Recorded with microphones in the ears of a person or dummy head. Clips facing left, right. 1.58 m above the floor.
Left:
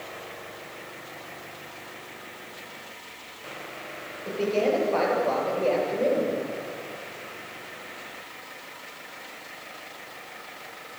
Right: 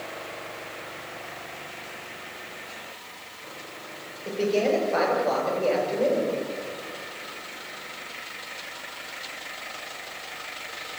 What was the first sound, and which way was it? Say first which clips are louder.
A man speaking: right 1 dB; 15° right (ahead or behind).